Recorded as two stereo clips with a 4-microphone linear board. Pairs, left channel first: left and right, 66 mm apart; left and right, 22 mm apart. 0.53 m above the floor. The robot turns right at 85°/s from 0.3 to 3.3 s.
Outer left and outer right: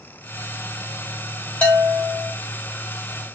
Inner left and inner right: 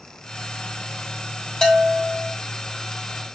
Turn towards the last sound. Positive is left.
turn(degrees=165)